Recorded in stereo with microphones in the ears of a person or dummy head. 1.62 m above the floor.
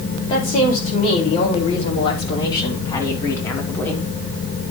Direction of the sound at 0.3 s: 40° left (ahead or behind).